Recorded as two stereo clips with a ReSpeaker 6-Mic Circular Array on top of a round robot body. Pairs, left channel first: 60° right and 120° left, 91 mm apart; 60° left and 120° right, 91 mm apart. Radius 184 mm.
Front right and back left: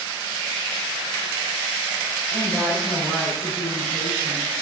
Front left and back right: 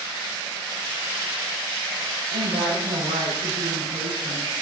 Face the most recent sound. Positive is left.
turn(degrees=-145)